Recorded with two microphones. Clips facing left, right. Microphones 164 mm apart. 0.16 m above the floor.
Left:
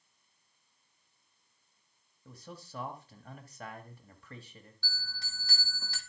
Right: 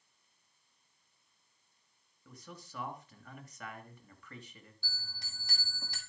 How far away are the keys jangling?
No keys jangling in this recording.